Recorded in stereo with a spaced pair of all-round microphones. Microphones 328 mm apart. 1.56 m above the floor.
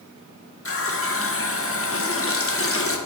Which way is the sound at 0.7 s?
40° left (ahead or behind).